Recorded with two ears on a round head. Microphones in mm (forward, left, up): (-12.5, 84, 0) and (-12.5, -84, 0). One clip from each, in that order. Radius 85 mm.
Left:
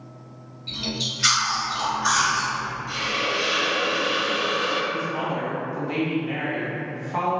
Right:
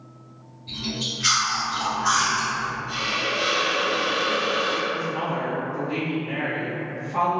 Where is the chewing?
75° left (ahead or behind), 1.9 m.